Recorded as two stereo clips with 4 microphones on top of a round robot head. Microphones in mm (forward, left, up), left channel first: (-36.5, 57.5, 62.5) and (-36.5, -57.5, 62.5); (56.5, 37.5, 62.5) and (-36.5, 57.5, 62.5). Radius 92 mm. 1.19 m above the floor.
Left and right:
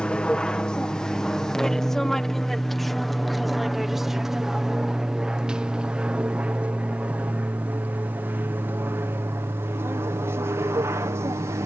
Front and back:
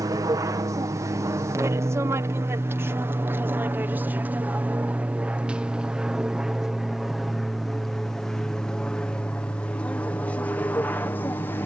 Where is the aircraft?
165° left; by 11.7 s 55° right.